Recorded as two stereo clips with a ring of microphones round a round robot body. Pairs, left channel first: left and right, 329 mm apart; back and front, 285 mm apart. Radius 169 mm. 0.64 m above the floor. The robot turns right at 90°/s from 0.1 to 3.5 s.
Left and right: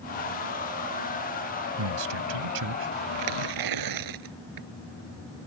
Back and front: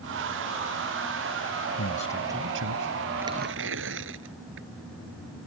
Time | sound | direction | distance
1.8 | a man speaking | 130° right | ?
3.1 | tearing paper | 90° right | ?